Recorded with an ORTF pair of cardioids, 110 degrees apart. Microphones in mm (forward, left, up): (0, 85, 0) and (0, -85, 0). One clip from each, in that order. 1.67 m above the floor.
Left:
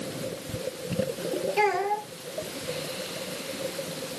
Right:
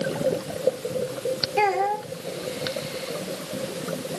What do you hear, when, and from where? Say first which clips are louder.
1.6 s a child speaking: right 3 dB; 5° left, 1.8 m